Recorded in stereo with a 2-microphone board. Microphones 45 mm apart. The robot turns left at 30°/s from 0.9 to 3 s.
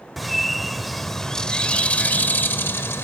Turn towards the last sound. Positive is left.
turn(degrees=115)